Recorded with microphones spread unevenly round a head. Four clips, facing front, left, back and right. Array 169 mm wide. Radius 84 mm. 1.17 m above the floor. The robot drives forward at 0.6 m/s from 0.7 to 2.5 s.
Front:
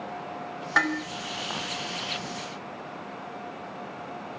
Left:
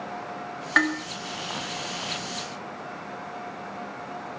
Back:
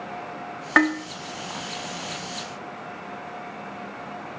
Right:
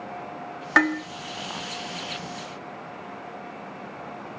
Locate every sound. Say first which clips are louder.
0.8 s dishes clattering: right 3 dB, back 6 dB; 165° right, 1.6 m